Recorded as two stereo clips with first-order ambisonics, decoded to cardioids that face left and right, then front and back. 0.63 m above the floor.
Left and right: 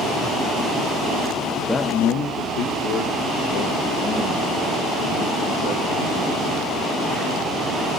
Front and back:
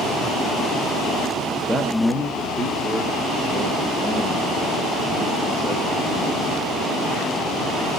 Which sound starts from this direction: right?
A man speaking, at 1.5 s.